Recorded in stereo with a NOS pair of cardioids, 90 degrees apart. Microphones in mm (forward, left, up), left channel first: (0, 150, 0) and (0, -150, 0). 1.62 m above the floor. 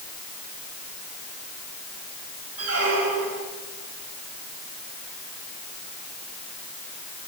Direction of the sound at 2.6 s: 60° right.